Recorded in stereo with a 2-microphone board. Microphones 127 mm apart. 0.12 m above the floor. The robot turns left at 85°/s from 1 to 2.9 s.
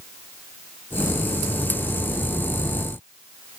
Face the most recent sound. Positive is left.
No sound to turn to.